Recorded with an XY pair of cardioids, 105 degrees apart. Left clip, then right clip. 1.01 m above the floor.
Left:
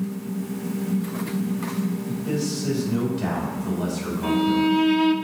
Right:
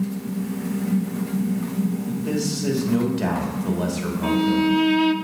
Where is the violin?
20° right, 0.6 m.